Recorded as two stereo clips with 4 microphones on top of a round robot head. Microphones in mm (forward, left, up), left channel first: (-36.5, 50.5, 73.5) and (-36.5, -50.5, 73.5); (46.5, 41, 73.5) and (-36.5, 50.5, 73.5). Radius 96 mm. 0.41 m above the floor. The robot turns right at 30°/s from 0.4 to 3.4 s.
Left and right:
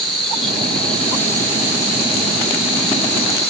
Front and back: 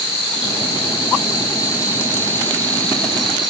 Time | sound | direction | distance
0.0 | an insect | straight ahead | 6.5 m